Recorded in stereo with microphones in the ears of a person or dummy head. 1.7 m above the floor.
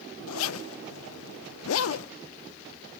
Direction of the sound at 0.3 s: 85° left.